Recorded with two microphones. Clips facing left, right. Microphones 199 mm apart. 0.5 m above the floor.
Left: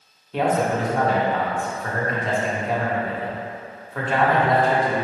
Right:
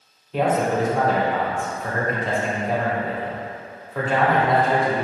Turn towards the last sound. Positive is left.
turn(degrees=0)  # may be behind; listen again after turning